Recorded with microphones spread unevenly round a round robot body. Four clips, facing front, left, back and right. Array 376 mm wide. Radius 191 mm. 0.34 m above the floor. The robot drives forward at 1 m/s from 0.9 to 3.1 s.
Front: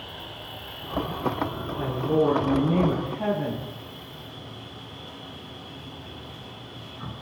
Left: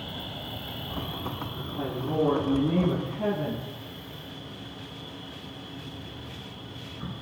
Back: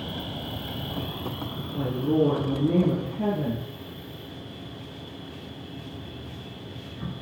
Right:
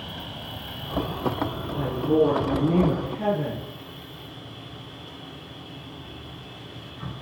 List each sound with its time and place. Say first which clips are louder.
0.0 s an insect: right 1 dB, back 6 dB; straight behind, 0.7 m
1.7 s a woman speaking: right 7 dB, even; 165° right, 7 m